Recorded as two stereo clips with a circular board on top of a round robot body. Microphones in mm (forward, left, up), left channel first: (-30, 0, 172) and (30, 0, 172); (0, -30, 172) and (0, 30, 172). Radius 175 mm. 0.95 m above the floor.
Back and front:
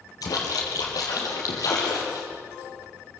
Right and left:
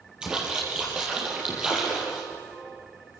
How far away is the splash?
About 5.5 m.